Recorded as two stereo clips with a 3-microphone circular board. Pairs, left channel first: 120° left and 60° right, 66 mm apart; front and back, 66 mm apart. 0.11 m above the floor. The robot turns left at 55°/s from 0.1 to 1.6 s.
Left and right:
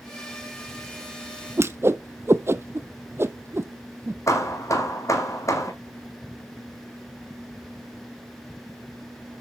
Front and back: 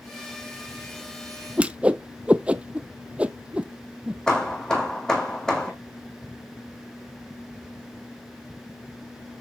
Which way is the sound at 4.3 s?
80° left.